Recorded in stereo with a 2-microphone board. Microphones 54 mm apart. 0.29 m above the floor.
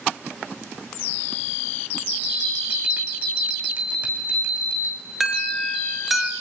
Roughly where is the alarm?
Centre.